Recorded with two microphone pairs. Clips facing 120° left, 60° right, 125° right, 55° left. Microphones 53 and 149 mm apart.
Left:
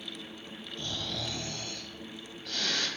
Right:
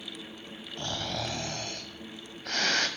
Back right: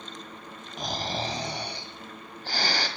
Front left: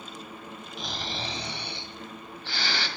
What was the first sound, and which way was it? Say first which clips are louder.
Snoring: right 4 dB, back right 5 dB; 85° right.